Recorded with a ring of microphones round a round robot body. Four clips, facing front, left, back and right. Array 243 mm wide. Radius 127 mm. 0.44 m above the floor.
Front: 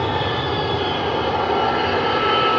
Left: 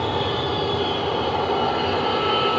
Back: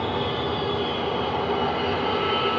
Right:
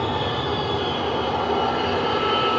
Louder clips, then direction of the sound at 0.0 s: Left 1 dB, front 4 dB; 10° left.